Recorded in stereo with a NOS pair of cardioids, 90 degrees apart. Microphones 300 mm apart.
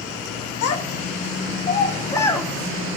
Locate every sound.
0.6 s a child speaking: 55° left, 1.3 m; by 3.0 s 10° right, 1.4 m